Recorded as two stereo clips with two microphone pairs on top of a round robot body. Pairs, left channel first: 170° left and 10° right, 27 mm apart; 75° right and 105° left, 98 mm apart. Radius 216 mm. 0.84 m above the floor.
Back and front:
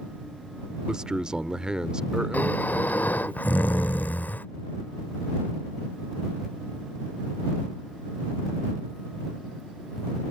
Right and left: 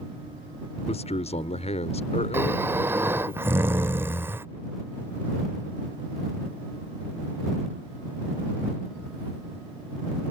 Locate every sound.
0.9 s a man speaking: 70° right
2.3 s snoring: straight behind